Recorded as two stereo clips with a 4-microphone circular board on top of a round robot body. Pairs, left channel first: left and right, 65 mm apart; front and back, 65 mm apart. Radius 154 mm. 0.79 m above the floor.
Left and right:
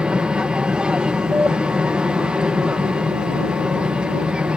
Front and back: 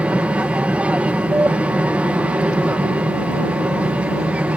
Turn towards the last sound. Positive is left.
turn(degrees=-145)